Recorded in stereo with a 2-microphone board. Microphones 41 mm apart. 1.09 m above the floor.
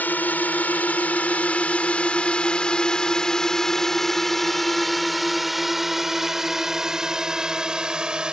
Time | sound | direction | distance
0.0 | a drone | 45° left (ahead or behind) | ?